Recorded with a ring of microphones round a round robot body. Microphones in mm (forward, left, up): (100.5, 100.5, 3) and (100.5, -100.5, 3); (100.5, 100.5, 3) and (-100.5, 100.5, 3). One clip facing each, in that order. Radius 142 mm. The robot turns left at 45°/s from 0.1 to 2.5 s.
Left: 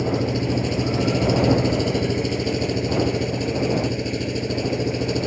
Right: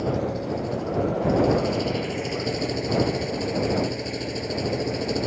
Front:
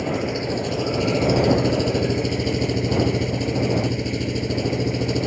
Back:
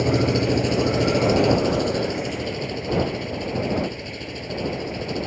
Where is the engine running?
140° left; by 5.3 s 35° left.